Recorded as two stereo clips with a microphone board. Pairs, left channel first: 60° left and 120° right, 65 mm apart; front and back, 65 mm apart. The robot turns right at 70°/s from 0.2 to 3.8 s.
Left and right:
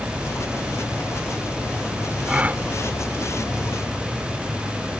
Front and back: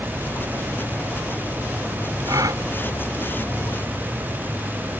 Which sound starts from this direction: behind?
A gasp, at 2.3 s.